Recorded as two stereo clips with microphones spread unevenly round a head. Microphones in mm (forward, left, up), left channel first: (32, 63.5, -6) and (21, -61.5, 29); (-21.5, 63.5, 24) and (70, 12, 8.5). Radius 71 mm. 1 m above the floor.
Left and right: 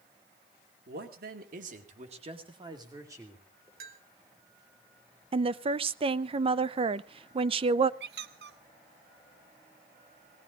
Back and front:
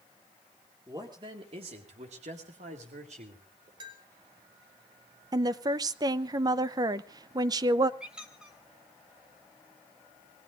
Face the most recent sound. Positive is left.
turn(degrees=-115)